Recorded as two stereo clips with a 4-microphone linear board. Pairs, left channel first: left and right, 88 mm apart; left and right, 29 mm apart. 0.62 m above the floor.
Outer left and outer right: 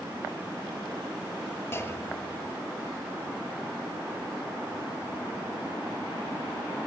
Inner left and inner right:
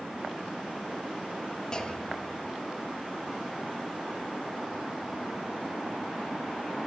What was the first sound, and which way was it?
A clunk, 25° left (ahead or behind).